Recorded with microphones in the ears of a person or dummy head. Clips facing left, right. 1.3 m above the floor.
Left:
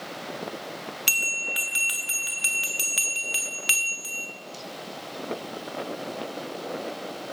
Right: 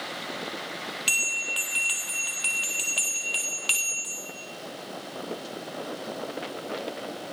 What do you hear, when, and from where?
1.1 s a bell: 25° left (ahead or behind), 0.9 m